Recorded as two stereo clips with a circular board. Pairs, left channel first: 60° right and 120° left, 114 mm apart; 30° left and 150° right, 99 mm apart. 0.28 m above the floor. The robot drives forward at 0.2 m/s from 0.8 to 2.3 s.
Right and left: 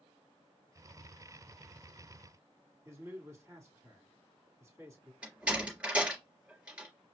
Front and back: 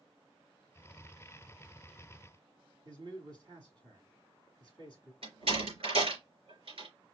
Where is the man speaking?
Straight behind, 2 m.